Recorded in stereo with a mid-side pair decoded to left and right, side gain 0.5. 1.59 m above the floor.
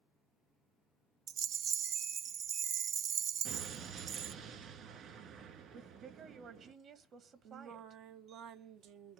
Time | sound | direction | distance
1.3 | a rattle | 55° right | 0.5 m
3.5 | an explosion | 65° right | 3 m
5.7 | a woman speaking | 55° right | 1.6 m
7.5 | singing | 65° right | 0.9 m